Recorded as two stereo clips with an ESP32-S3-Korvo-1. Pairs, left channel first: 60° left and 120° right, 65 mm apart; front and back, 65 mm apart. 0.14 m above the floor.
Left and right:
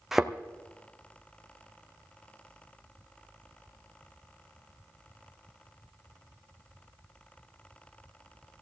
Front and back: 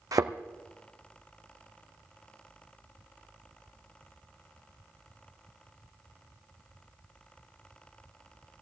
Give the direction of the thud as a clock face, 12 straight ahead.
7 o'clock.